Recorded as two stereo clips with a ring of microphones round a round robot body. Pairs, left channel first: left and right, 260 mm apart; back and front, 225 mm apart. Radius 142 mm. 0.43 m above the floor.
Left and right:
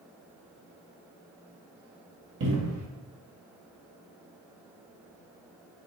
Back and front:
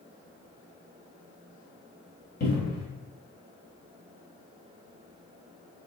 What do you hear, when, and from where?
2.4 s a cupboard door: 130° right, 1.2 m